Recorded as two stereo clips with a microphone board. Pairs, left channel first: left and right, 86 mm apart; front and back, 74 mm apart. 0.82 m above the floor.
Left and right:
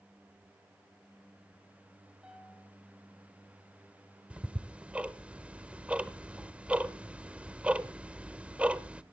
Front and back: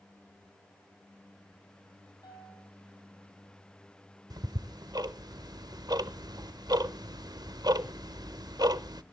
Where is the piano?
15° right, 6.5 m.